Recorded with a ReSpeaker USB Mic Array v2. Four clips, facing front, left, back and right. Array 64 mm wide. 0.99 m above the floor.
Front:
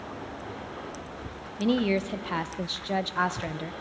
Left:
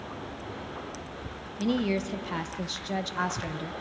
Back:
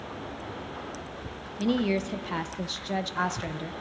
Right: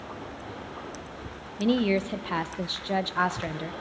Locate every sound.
1.6 s a woman speaking: 65° right, 0.7 m